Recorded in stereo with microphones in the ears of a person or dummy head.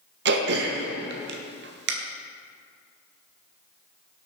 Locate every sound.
0.2 s throat clearing: 55° right (ahead or behind), 0.9 m